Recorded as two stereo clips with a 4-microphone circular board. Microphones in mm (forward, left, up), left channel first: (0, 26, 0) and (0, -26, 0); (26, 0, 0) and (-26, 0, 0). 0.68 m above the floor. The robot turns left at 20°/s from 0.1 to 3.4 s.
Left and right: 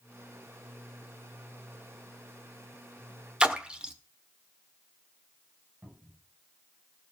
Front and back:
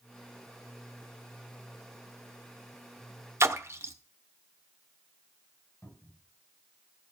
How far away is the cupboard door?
About 6 m.